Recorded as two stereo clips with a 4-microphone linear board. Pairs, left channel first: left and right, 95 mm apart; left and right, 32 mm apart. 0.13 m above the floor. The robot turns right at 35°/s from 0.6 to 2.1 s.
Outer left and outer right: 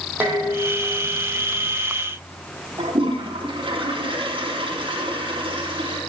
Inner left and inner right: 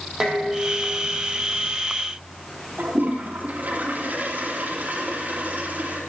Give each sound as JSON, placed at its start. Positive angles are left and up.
{"t": 0.2, "sound": "dishes clattering", "azimuth_deg": -25, "distance_m": 3.0}
{"t": 2.8, "sound": "a toilet flushing", "side_deg": -60, "distance_m": 3.5}